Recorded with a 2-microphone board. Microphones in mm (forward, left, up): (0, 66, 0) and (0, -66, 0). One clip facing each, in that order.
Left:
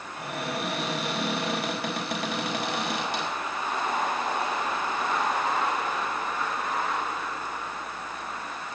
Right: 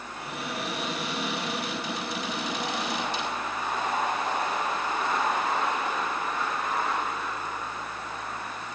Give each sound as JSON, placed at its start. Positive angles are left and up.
{"t": 0.2, "sound": "a cupboard door", "side_deg": 65, "distance_m": 5.0}